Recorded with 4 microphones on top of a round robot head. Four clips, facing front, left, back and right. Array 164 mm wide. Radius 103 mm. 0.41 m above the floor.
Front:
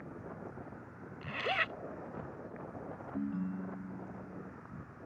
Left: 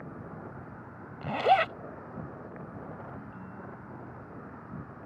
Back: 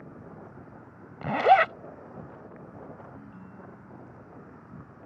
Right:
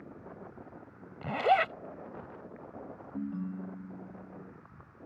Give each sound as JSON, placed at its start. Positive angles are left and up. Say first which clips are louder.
{"t": 0.0, "sound": "an insect", "louder": "left 4 dB, back 1 dB", "azimuth_deg": 105}
{"t": 1.2, "sound": "a zipper", "louder": "left 2 dB, back 17 dB", "azimuth_deg": 170}
{"t": 3.1, "sound": "a ringtone", "louder": "right 7 dB, front 9 dB", "azimuth_deg": -50}